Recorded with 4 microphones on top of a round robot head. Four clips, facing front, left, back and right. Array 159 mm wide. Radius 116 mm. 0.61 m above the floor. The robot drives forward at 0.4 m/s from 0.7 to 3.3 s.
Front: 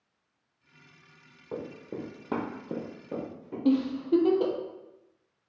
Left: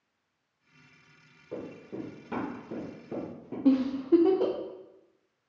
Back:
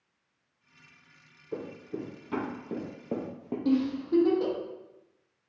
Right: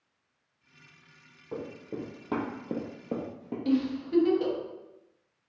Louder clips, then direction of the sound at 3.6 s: Left 5 dB, front 2 dB; 65° left.